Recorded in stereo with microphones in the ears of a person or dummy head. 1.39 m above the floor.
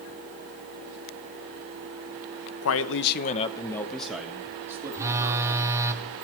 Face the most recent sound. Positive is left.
turn(degrees=-15)  # may be behind; listen again after turning